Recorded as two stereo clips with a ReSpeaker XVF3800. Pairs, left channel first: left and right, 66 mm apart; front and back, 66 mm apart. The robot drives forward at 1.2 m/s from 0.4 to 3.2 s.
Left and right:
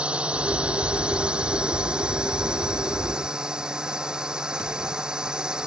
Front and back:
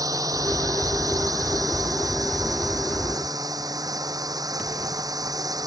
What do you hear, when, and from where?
0.0 s a drone: 160° right; by 5.7 s 165° right